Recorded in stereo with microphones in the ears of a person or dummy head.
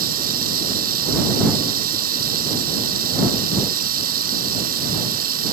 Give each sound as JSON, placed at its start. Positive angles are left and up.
{"t": 0.0, "sound": "running water", "side_deg": -45}